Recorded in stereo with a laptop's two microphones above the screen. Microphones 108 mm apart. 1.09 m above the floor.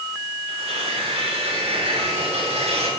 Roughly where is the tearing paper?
Right.